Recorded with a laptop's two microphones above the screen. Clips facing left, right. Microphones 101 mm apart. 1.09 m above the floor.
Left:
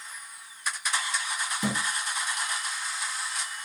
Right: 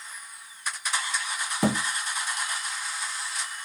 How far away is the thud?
About 0.7 m.